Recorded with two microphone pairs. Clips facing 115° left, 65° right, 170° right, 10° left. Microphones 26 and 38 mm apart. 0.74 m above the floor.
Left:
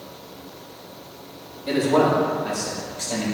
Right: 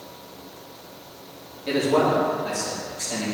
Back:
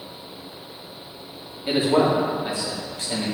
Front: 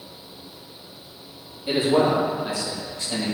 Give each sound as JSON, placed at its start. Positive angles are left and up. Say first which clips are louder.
{"t": 1.7, "sound": "a man speaking", "louder": "left 2 dB, even", "azimuth_deg": -135, "distance_m": 1.7}